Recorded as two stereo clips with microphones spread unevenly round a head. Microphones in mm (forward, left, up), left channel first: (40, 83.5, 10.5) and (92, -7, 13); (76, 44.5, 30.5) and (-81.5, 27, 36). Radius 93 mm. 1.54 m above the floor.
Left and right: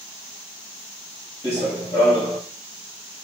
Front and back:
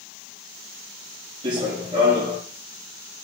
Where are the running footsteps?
160° left, 1.8 m.